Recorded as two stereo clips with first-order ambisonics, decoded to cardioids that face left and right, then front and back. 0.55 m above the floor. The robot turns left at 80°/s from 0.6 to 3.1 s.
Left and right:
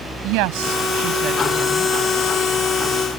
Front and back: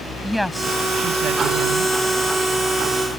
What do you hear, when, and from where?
0.2 s a woman speaking: 90° right; by 1.9 s 165° left